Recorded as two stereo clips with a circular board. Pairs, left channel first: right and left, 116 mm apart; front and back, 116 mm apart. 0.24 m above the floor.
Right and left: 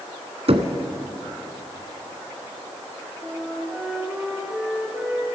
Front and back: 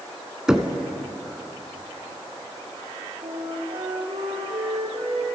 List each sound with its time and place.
0.5 s knocking: 95° left, 1.7 m
3.2 s a flute: 165° left, 6 m